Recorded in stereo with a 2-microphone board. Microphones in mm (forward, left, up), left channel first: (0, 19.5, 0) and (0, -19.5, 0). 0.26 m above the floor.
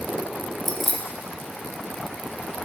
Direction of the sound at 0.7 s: 10° left (ahead or behind).